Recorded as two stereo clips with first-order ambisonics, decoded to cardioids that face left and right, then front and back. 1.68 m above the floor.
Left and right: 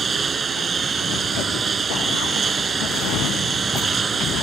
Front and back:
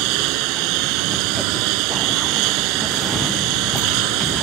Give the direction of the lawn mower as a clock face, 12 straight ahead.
5 o'clock.